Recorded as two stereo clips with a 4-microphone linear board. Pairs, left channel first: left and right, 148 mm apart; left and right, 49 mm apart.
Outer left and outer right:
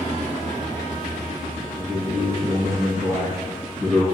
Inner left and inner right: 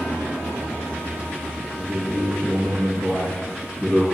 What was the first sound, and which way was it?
A man speaking, 5° left (ahead or behind).